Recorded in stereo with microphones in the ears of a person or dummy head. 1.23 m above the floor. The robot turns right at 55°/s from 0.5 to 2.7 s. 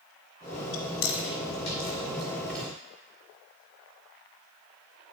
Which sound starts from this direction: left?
Chewing, at 0.7 s.